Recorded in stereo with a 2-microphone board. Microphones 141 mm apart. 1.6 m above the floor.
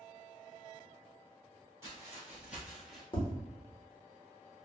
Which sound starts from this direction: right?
Footsteps, at 1.8 s.